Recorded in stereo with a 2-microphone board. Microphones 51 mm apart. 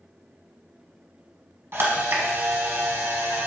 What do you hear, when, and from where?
1.7 s a camera shutter: 55° right (ahead or behind), 0.9 m